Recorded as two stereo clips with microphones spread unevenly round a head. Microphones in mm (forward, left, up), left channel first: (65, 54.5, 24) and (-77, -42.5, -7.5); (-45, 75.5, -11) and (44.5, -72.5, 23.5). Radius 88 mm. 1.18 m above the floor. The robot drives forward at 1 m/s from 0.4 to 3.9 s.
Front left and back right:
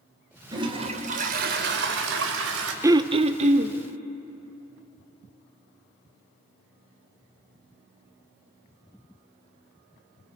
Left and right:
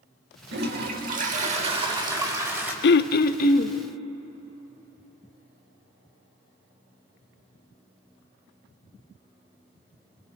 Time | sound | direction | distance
0.5 | a toilet flushing | 75° right | 1.9 m
2.8 | throat clearing | 140° left | 0.5 m